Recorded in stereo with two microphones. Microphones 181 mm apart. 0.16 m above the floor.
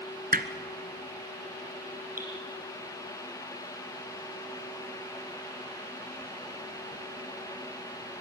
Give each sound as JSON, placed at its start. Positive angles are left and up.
{"t": 0.3, "sound": "hammering", "side_deg": -55, "distance_m": 1.1}
{"t": 2.2, "sound": "dripping", "side_deg": -50, "distance_m": 5.0}